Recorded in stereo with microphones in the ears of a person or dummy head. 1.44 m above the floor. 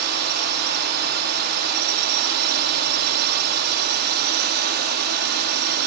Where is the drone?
55° right (ahead or behind).